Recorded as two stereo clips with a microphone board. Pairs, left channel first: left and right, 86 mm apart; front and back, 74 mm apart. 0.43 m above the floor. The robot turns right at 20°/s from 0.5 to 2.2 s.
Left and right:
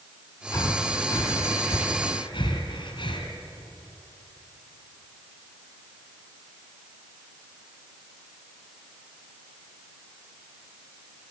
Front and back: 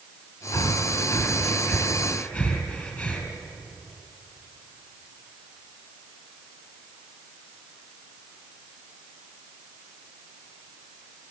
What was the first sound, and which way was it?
Breathing, 40° left.